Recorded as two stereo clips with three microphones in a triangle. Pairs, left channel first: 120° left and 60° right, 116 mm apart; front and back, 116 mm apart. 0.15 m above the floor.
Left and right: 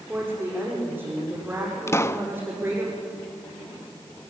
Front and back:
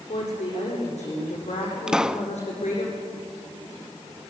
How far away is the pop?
About 0.5 m.